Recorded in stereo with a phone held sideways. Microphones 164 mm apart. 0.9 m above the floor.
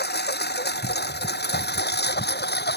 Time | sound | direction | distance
0.0 | a lawn mower | 80° left | ?